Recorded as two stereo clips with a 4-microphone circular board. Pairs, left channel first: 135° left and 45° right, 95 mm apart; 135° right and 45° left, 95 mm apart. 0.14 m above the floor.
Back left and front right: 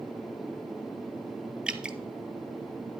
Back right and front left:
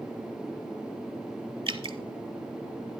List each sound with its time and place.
1.7 s dripping: 35° left, 0.6 m